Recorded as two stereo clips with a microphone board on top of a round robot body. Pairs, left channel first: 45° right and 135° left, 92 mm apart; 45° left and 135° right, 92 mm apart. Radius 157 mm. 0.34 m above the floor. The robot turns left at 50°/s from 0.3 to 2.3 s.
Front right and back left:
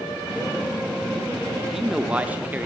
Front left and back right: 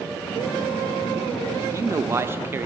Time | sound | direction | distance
1.6 | a man speaking | 135° right | 1.2 m